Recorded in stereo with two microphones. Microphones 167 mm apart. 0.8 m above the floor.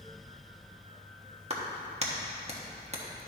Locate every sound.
1.5 s a clap: 40° right (ahead or behind), 1.2 m